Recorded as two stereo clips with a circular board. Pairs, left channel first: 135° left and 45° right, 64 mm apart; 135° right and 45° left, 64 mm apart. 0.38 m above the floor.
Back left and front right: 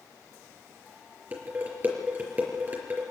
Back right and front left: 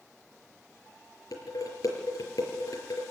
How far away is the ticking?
No ticking in this recording.